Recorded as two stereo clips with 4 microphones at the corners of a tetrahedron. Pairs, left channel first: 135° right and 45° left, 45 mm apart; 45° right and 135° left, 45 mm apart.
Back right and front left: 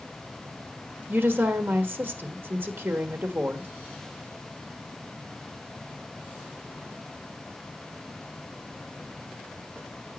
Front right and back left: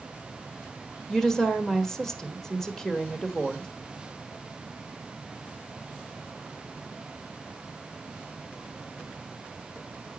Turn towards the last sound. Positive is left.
turn(degrees=30)